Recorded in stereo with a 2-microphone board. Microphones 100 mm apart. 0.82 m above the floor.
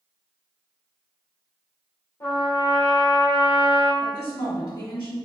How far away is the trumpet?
About 1.9 m.